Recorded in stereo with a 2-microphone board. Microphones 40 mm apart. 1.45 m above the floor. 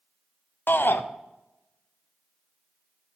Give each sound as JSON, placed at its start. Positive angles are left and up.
{"t": 0.7, "sound": "a shout", "side_deg": 55, "distance_m": 0.5}